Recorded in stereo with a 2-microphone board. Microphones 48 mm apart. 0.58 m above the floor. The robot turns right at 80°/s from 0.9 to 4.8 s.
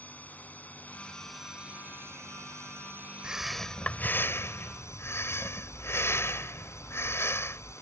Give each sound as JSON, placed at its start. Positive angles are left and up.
{"t": 0.0, "sound": "a drone", "azimuth_deg": 145}
{"t": 3.2, "sound": "breathing", "azimuth_deg": -20}